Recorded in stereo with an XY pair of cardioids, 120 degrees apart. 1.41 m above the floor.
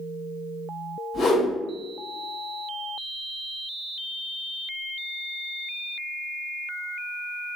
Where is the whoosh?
40° left, 1.3 m.